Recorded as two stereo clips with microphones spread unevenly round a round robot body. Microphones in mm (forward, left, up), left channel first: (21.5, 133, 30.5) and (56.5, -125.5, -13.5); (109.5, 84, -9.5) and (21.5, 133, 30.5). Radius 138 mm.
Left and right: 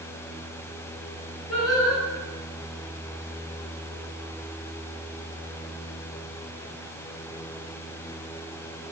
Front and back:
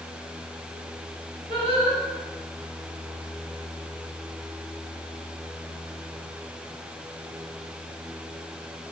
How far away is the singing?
About 1.8 m.